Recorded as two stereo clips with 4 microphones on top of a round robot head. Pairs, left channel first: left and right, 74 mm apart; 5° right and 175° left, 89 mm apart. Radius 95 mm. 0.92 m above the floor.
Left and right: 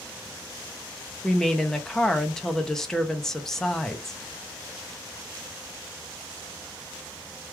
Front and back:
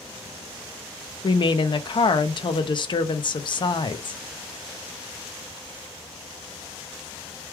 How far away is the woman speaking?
About 0.7 m.